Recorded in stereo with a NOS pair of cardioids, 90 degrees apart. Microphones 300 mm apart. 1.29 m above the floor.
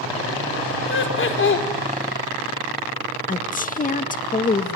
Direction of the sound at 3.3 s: 25° left.